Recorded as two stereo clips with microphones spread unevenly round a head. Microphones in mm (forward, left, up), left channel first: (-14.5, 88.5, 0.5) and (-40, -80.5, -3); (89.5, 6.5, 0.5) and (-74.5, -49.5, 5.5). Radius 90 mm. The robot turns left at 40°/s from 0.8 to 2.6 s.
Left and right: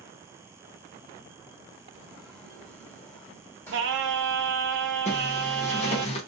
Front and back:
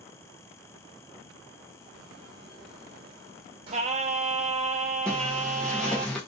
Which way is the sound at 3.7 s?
110° right.